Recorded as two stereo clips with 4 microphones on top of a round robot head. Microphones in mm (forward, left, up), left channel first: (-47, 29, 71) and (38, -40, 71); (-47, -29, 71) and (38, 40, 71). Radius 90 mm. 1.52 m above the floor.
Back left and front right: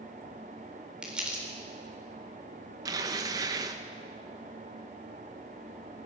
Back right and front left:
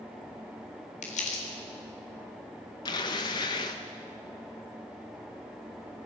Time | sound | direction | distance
1.0 | crumpling | 120° right | 4 m
2.9 | tearing paper | 90° right | 0.8 m